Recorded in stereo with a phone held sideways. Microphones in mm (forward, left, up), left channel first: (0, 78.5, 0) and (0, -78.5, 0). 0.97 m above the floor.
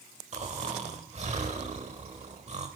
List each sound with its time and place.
0.3 s snoring: 45° right (ahead or behind), 0.9 m